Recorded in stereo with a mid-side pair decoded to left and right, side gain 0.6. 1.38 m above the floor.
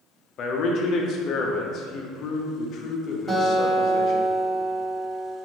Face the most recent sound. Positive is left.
turn(degrees=-25)